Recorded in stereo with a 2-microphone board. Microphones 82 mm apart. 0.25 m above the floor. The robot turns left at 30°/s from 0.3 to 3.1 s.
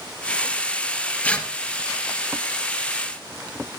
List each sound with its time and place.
1.2 s tearing paper: 15° left (ahead or behind), 1.9 m; by 1.5 s 10° left (ahead or behind), 1.9 m